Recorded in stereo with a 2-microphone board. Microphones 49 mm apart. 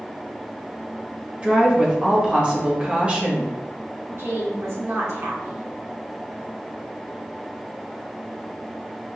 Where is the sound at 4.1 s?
65° right (ahead or behind), 1.5 m.